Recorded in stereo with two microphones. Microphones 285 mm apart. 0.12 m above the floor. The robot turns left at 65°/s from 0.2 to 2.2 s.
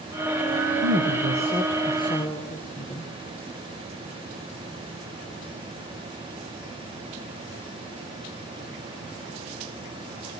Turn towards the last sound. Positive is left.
turn(degrees=150)